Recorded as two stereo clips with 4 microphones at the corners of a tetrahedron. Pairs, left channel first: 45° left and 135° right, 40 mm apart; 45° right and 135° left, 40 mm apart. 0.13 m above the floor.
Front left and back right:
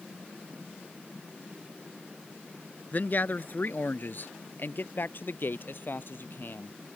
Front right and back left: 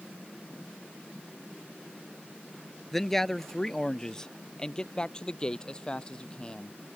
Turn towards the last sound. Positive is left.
turn(degrees=20)